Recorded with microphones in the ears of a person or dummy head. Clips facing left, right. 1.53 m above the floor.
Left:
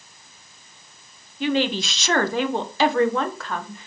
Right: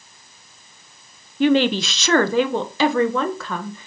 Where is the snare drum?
No snare drum in this recording.